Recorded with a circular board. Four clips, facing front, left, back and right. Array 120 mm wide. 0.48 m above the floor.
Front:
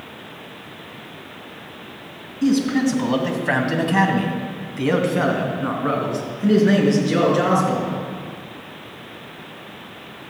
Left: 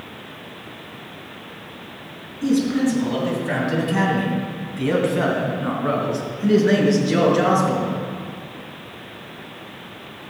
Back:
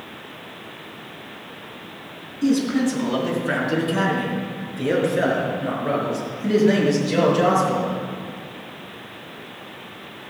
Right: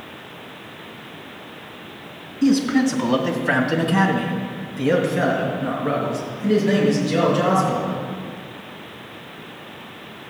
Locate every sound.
2.4 s a man speaking: 60° right, 3 m; by 7.9 s 40° left, 6.5 m